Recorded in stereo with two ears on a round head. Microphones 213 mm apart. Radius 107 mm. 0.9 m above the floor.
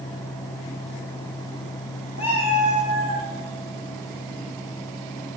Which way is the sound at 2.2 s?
25° left (ahead or behind).